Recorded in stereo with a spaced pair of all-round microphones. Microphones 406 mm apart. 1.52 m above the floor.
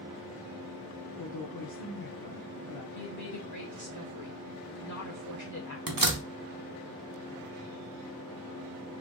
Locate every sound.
1.2 s a woman speaking: 65° left (ahead or behind), 0.6 m
3.0 s a woman speaking: 45° left (ahead or behind), 1.2 m
5.9 s a door slam: 60° right (ahead or behind), 0.6 m